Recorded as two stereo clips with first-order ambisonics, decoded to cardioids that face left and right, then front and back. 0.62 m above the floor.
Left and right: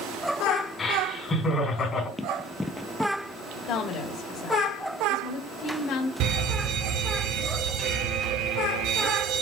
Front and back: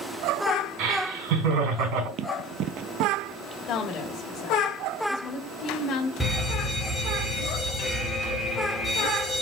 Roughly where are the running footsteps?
Behind.